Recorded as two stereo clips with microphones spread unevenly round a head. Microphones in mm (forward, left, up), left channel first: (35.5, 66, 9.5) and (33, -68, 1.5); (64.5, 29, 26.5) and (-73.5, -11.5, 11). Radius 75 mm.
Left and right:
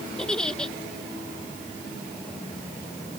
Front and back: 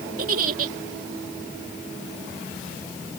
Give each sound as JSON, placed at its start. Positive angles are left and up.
{"t": 0.2, "sound": "a giggle", "azimuth_deg": 170}